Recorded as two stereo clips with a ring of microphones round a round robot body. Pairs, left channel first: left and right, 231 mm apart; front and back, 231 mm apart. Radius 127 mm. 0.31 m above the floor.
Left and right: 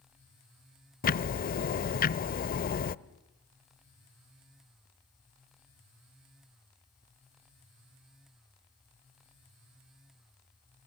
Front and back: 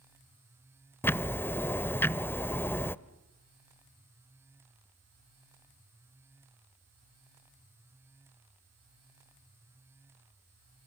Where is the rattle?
I don't hear a rattle.